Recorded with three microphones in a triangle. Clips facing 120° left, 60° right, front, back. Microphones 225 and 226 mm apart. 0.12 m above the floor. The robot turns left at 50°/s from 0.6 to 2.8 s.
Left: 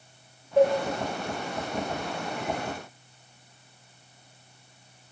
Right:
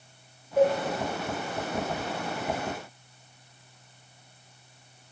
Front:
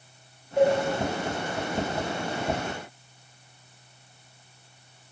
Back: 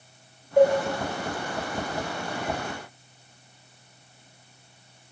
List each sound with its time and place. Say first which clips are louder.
0.6 s a cowbell: left 2 dB, back 3 dB; 160° left, 1.6 m; by 0.8 s 155° left, 1.6 m